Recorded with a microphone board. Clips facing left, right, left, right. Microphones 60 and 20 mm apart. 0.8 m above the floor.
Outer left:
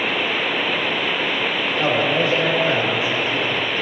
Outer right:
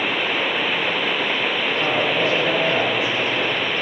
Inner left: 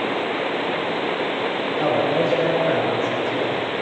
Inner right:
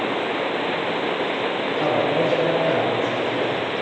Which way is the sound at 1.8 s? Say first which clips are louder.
Outer left 3 dB, inner left 1 dB; 25° left (ahead or behind).